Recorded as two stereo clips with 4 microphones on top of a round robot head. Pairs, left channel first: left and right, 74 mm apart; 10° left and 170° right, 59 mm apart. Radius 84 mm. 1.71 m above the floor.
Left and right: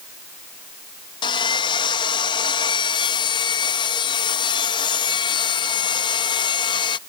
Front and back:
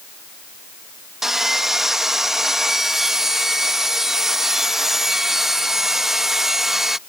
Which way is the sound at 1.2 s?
105° left.